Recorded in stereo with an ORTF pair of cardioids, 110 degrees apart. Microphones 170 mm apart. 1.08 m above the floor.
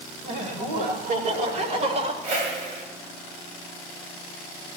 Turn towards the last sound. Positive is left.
turn(degrees=-60)